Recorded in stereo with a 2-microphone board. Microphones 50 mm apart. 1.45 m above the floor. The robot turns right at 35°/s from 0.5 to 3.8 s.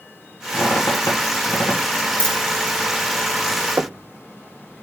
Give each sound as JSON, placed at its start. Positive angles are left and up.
{"t": 0.5, "sound": "a squeak", "side_deg": 60, "distance_m": 3.5}
{"t": 2.2, "sound": "a dropped coin", "side_deg": -45, "distance_m": 1.3}
{"t": 3.8, "sound": "knocking", "side_deg": -65, "distance_m": 0.5}